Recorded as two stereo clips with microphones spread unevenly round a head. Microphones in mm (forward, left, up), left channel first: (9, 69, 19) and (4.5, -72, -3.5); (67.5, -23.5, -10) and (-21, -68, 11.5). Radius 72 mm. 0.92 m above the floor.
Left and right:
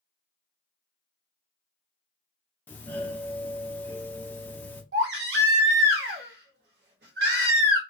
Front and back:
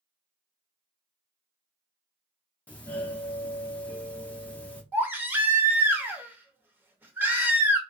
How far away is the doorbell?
About 0.7 m.